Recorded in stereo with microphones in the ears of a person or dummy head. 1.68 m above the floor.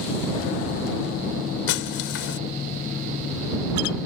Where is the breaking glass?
70° left (ahead or behind).